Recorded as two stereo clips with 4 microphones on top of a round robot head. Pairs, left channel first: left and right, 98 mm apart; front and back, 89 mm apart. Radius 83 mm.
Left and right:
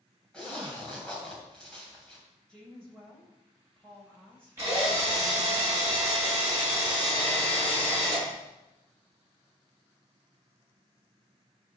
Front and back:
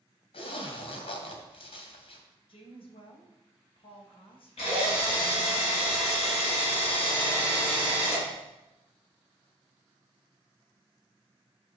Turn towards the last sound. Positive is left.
turn(degrees=-20)